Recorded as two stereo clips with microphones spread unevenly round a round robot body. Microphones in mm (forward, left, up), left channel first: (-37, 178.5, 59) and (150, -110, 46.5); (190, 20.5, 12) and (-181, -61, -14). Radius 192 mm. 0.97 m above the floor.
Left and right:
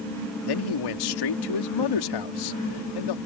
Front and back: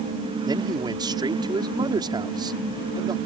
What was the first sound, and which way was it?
A man speaking, 115° left.